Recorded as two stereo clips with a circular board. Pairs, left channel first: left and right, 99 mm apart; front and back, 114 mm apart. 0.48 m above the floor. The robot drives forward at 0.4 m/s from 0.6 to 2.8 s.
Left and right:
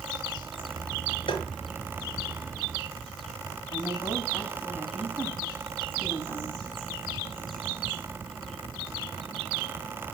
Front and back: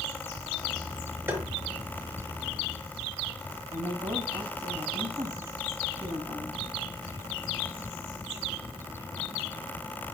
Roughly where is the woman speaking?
Behind left.